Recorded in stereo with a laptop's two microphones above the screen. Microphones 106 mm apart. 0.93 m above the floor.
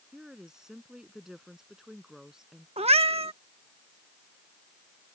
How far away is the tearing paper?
I don't hear tearing paper.